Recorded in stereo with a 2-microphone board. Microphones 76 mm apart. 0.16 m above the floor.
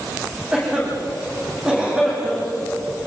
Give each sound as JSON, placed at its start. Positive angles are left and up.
{"t": 0.5, "sound": "a cough", "side_deg": -15, "distance_m": 10.0}